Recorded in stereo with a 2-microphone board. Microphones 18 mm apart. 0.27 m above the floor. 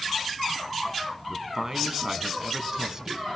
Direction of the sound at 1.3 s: 35° right (ahead or behind).